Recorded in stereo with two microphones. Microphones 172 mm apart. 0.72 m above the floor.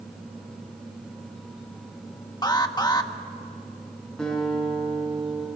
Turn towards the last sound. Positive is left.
turn(degrees=5)  # may be behind; listen again after turning